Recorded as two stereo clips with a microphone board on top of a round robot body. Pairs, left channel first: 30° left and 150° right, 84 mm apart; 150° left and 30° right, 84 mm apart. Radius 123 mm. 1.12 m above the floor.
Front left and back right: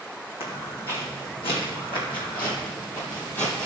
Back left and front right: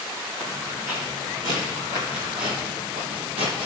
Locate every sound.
0.4 s footsteps: 30° left, 3 m; by 3.7 s 45° right, 1.9 m